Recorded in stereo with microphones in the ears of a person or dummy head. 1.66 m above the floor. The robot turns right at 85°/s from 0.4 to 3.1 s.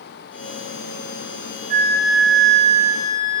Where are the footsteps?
No footsteps in this recording.